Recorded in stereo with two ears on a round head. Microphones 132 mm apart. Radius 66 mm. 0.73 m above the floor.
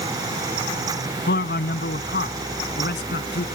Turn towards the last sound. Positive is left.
turn(degrees=85)